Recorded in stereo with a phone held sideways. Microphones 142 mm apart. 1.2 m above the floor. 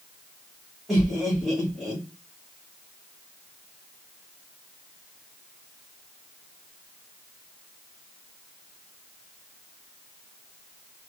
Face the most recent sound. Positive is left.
turn(degrees=0)  # may be behind; listen again after turning